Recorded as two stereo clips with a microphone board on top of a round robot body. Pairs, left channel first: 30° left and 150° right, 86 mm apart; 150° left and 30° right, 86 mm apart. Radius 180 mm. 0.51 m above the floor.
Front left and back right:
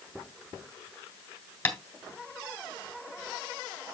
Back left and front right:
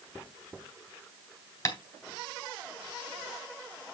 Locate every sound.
1.6 s tapping: 95° left, 2.5 m